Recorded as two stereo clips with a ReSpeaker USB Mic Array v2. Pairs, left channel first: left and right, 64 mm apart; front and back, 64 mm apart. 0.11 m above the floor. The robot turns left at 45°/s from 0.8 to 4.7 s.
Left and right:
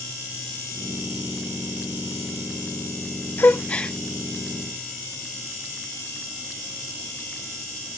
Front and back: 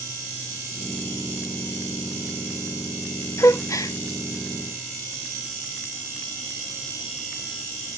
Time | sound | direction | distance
3.4 | a gasp | 35° left | 0.5 m